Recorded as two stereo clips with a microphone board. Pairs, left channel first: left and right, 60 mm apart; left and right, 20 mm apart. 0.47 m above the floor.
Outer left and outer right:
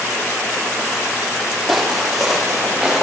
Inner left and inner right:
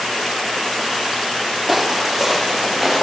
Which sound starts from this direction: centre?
Footsteps, at 1.7 s.